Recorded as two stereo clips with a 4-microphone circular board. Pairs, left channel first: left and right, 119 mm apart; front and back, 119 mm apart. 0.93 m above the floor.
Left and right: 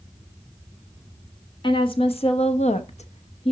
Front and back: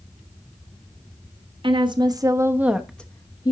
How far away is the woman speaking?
About 1.4 m.